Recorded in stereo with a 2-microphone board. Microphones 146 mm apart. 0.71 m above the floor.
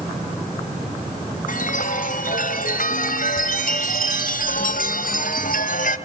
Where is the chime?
80° left, 3 m.